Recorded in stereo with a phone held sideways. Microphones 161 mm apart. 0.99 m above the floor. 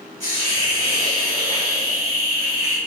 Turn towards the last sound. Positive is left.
turn(degrees=-50)  # may be behind; listen again after turning